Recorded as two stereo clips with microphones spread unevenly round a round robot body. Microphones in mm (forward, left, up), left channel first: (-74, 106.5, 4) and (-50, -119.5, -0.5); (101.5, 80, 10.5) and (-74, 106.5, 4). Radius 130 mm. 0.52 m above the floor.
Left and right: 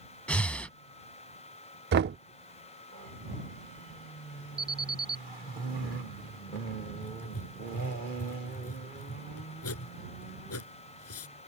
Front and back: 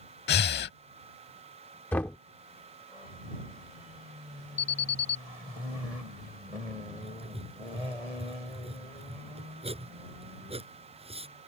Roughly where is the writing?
Behind left.